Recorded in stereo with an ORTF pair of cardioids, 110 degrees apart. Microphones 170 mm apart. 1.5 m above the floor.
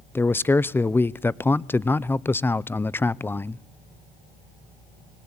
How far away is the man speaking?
About 0.7 m.